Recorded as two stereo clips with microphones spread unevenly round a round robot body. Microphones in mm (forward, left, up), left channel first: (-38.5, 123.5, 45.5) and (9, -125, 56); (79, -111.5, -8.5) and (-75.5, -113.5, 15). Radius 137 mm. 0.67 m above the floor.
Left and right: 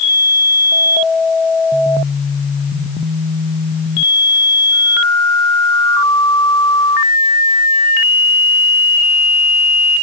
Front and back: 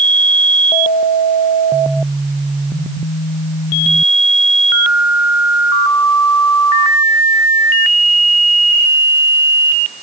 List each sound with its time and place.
Only background noise.